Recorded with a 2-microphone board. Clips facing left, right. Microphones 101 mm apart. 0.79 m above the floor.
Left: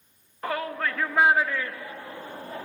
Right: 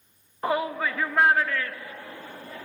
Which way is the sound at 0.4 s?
20° right (ahead or behind).